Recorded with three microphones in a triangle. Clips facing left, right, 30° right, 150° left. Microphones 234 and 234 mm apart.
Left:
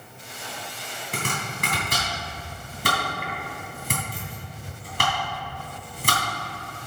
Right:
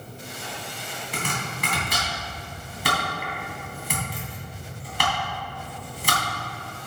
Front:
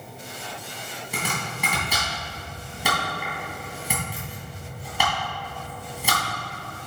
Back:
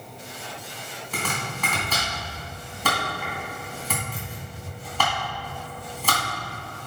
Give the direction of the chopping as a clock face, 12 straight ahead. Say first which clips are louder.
Left 1 dB, even; 10 o'clock.